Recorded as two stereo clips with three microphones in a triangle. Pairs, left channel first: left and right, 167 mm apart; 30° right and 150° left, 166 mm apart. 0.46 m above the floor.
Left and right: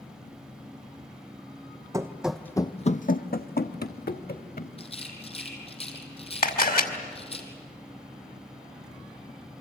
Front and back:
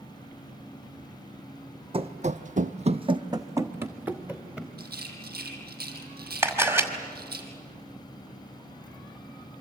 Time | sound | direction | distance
1.9 | running footsteps | 160° right | 1.1 m
4.8 | a rattle | 140° left | 2.5 m
6.4 | a camera shutter | 75° left | 2 m